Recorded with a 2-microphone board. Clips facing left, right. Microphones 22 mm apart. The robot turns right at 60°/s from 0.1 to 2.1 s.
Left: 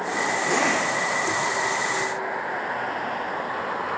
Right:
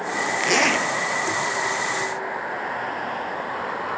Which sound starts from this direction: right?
A zipper, at 0.4 s.